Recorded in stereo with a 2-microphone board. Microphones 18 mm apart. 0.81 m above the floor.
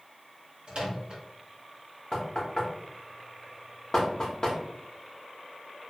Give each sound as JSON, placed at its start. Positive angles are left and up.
{"t": 0.7, "sound": "a microwave", "side_deg": -60, "distance_m": 0.8}
{"t": 2.1, "sound": "knocking", "side_deg": 35, "distance_m": 0.7}